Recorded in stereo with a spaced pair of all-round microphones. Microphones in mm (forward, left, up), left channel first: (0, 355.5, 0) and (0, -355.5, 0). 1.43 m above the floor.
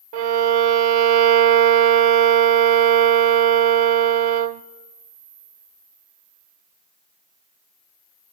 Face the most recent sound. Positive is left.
turn(degrees=-65)  # may be behind; listen again after turning